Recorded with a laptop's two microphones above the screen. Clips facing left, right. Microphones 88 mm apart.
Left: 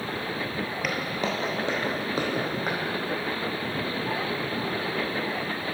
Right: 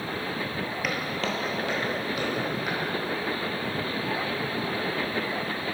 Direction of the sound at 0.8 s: Centre (ahead or behind).